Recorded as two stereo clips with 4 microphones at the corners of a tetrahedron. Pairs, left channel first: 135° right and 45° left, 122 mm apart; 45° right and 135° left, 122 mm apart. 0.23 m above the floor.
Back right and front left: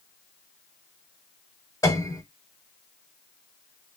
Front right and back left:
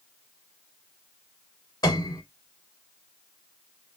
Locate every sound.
1.8 s a piano: 85° right, 0.8 m